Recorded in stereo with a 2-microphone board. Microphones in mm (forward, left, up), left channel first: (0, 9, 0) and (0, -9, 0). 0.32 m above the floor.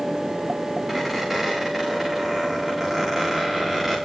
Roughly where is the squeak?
Centre.